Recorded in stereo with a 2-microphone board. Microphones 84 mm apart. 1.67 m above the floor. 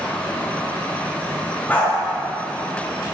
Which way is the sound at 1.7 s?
20° left (ahead or behind).